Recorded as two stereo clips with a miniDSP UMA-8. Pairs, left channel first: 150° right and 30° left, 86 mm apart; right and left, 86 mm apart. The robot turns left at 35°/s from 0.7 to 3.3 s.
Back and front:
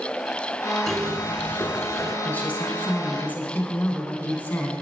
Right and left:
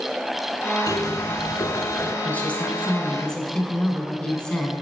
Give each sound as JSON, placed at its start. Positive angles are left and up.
{"t": 0.9, "sound": "a zipper", "azimuth_deg": -65, "distance_m": 0.7}
{"t": 2.2, "sound": "a woman speaking", "azimuth_deg": -115, "distance_m": 1.2}